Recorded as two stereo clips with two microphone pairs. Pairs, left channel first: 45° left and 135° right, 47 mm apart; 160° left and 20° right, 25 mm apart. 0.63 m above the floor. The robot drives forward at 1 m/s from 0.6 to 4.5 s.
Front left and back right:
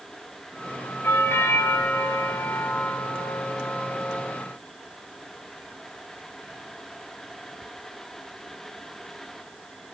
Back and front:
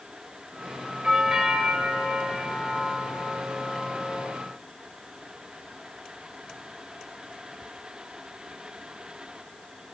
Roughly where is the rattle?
No rattle in this recording.